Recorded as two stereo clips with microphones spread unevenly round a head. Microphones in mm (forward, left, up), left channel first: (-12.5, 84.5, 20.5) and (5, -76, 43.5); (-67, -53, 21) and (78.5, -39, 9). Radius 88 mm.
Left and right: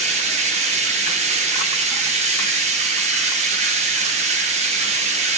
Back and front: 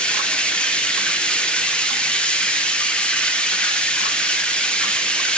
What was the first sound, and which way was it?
Running water, 100° right.